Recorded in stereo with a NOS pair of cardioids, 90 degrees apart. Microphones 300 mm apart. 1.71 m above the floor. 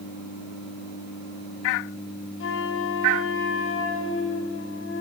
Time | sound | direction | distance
2.4 | a flute | 45° left | 0.9 m